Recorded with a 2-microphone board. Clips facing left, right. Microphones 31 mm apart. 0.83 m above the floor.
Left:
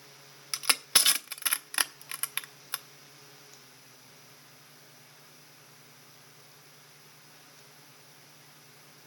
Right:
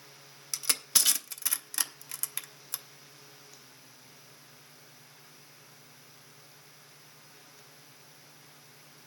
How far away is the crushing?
About 0.6 m.